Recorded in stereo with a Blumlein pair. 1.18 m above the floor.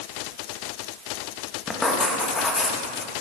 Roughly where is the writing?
Ahead.